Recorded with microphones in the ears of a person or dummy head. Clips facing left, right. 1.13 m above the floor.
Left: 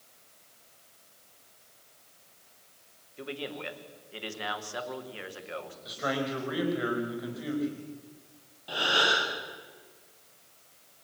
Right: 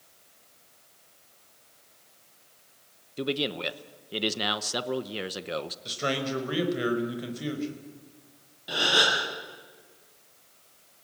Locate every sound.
3.2 s a man speaking: 45° right (ahead or behind), 0.9 m
5.8 s a man speaking: 35° right (ahead or behind), 4.5 m
8.7 s a gasp: 20° right (ahead or behind), 7.5 m